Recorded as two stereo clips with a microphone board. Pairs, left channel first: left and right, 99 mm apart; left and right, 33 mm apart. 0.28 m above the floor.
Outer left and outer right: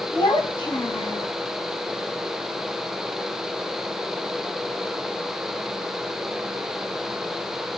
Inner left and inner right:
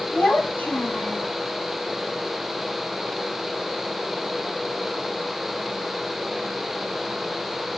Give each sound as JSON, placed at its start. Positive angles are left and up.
{"t": 0.1, "sound": "a child speaking", "side_deg": 50, "distance_m": 1.3}